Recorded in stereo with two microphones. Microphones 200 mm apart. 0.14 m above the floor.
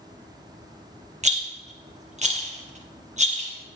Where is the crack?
I don't hear a crack.